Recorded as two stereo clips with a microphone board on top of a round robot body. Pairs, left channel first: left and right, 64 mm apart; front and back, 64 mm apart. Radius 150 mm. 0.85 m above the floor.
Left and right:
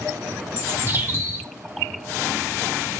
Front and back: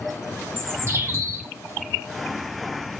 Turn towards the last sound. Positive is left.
turn(degrees=-140)